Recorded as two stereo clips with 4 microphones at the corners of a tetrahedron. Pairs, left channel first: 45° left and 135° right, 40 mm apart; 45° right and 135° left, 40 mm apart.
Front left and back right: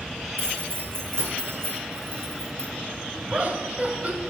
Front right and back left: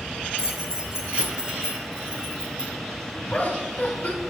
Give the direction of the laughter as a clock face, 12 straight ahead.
3 o'clock.